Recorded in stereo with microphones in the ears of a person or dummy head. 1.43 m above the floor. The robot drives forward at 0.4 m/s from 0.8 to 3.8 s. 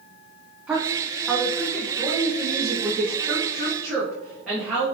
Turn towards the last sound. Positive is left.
turn(degrees=0)  # may be behind; listen again after turning